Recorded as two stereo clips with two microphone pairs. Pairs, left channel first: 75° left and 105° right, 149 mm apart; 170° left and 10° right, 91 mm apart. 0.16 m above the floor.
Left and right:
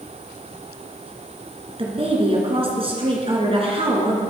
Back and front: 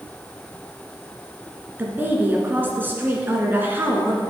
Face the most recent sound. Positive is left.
turn(degrees=-75)